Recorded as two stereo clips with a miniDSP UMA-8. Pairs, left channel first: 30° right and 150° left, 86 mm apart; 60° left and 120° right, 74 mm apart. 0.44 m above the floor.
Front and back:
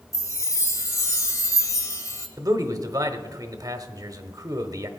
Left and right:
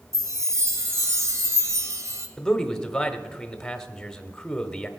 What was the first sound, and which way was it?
A chime, 80° right.